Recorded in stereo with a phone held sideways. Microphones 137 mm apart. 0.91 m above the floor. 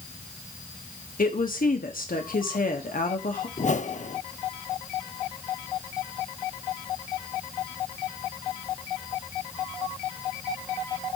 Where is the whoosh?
55° left (ahead or behind), 0.7 m.